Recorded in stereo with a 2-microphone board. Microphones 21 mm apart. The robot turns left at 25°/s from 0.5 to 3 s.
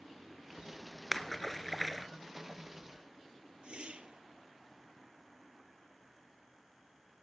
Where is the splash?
15° left (ahead or behind), 0.8 m; by 2.1 s centre (ahead or behind), 0.8 m.